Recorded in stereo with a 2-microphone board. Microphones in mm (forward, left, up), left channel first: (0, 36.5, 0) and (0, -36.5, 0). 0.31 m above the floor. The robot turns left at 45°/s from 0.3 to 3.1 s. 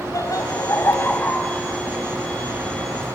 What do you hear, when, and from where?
0.1 s laughter: 55° left (ahead or behind), 2 m; by 3.2 s 45° right (ahead or behind), 2 m